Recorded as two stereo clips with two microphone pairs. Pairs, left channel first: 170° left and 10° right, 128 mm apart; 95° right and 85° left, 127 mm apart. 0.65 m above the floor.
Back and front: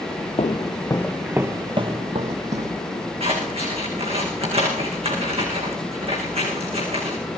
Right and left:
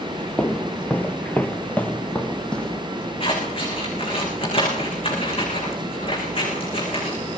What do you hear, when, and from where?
0.4 s footsteps: 175° right, 1.0 m; by 2.8 s 10° right, 1.6 m
3.2 s scissors: 45° right, 8.5 m